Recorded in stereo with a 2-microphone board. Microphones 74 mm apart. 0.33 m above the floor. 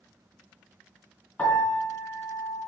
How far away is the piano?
About 3 m.